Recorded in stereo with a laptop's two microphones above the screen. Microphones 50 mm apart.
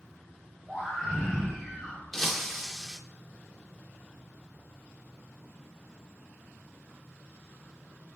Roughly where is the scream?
Centre.